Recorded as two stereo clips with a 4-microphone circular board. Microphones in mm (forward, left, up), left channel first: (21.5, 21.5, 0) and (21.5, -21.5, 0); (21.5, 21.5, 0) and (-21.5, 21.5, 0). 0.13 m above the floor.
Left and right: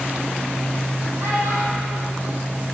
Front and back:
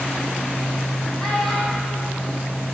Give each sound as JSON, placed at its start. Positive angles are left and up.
{"t": 1.2, "sound": "a child speaking", "azimuth_deg": -85, "distance_m": 3.5}